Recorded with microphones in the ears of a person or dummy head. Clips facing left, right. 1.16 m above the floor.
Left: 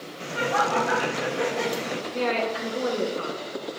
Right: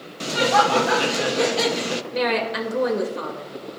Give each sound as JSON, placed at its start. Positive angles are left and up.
{"t": 0.2, "sound": "laughter", "side_deg": -45, "distance_m": 0.6}
{"t": 2.1, "sound": "a woman speaking", "side_deg": -75, "distance_m": 2.0}